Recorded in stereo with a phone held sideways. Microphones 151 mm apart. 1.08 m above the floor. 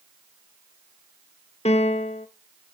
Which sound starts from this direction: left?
A piano, at 1.6 s.